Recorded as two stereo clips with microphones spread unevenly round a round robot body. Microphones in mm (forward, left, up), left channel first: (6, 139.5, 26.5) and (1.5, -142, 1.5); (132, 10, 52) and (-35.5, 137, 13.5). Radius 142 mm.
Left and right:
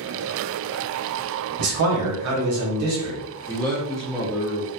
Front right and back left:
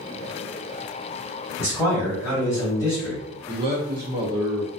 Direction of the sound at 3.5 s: Straight behind.